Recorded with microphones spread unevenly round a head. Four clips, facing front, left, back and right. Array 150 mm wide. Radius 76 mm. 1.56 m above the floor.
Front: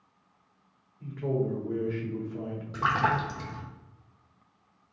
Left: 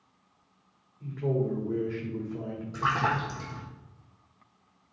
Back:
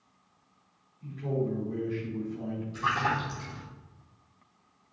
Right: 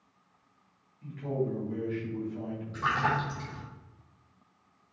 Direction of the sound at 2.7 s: 20° left.